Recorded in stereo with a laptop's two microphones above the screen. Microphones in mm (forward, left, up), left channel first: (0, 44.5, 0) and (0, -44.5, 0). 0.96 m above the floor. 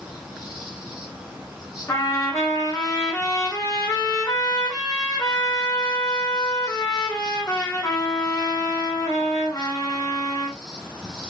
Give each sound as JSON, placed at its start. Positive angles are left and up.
{"t": 0.0, "sound": "an insect", "side_deg": -5, "distance_m": 3.0}
{"t": 1.9, "sound": "a trumpet", "side_deg": 35, "distance_m": 2.0}